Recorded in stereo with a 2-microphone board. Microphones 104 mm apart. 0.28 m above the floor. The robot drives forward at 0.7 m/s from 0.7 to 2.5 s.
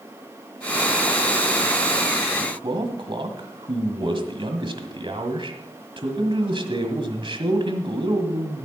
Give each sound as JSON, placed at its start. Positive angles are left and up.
{"t": 2.4, "sound": "a man speaking", "side_deg": -50, "distance_m": 1.7}